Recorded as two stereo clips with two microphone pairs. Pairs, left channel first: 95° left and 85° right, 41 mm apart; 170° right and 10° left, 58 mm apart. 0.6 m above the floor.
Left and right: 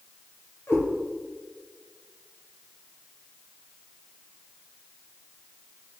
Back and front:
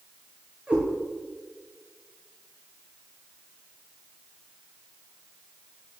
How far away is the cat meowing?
About 3.5 m.